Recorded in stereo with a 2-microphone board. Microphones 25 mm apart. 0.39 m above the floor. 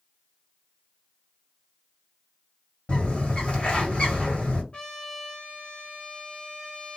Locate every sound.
2.9 s a bird: 50° left (ahead or behind), 2 m
4.7 s a trumpet: 40° left (ahead or behind), 1.9 m